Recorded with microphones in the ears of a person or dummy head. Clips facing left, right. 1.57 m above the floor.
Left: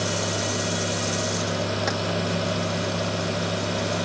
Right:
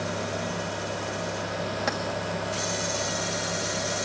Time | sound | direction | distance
1.9 | keys jangling | 5° left (ahead or behind) | 2.0 m